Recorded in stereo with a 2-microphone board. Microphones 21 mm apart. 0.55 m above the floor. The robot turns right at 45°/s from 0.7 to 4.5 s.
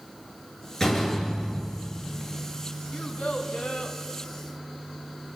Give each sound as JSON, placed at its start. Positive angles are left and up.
{"t": 0.8, "sound": "a door slam", "azimuth_deg": 25, "distance_m": 8.0}
{"t": 2.9, "sound": "a child speaking", "azimuth_deg": 60, "distance_m": 2.5}